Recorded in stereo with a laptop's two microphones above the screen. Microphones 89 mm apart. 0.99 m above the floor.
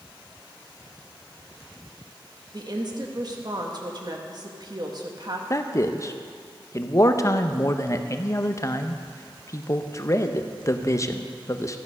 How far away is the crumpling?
No crumpling in this recording.